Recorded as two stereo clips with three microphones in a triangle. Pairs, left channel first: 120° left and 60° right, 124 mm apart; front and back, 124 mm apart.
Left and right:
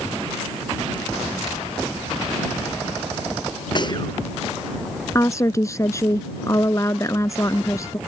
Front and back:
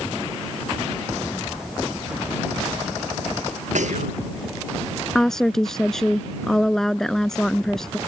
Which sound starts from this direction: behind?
Whispering, at 3.8 s.